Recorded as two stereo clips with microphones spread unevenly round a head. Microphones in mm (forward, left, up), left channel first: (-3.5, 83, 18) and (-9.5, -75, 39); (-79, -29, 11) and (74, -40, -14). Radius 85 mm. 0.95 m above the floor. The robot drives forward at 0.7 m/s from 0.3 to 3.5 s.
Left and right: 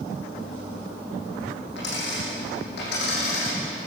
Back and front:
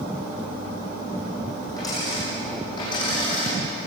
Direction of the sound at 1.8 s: 105° left.